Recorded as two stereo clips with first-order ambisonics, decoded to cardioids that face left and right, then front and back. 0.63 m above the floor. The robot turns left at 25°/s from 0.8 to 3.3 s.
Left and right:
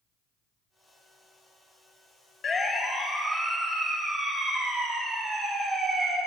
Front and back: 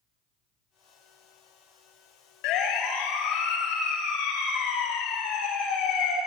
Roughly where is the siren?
Ahead left.